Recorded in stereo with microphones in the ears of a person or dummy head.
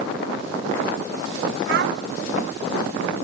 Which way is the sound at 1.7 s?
55° right (ahead or behind).